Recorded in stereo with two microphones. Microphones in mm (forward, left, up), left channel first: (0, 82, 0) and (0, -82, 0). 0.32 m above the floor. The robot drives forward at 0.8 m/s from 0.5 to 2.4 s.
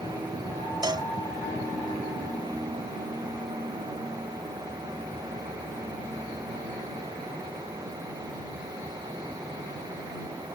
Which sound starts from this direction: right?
A cowbell, at 0.8 s.